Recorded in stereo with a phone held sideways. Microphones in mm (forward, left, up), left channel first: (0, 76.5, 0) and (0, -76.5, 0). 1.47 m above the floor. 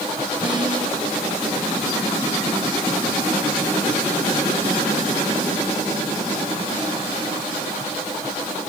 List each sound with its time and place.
0.4 s a snare drum: 30° right (ahead or behind), 5.5 m